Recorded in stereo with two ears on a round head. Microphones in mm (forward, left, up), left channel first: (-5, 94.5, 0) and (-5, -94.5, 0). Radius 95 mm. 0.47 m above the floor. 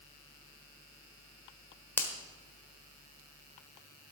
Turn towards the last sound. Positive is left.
turn(degrees=10)  # may be behind; listen again after turning